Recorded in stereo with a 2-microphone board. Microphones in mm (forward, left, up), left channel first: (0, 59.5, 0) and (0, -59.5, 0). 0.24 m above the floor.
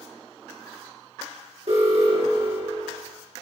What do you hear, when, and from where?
1.7 s an alarm: 60° right (ahead or behind), 5 m